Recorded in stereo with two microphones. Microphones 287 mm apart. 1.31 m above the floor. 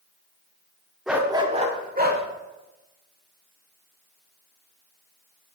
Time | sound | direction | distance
1.1 | a dog barking | centre (ahead or behind) | 0.9 m